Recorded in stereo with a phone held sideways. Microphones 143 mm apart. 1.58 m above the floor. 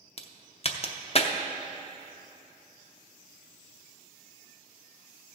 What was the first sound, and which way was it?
A crack, 45° left (ahead or behind).